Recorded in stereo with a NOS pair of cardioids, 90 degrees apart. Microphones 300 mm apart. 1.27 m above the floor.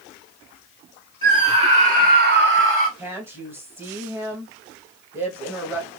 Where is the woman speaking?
5° right, 1.6 m.